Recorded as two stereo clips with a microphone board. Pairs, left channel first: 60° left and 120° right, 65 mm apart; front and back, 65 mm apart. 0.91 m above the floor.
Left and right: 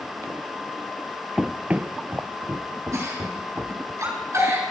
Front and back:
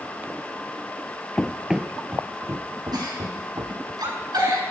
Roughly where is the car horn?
I don't hear a car horn.